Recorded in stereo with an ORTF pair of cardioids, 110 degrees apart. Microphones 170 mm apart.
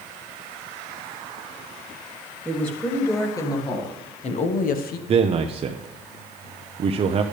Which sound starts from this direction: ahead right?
A man speaking, at 5.1 s.